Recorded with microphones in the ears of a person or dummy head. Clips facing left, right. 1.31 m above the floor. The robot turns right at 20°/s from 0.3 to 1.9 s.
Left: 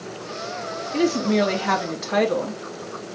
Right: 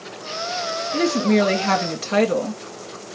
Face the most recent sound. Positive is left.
turn(degrees=-40)  # may be behind; listen again after turning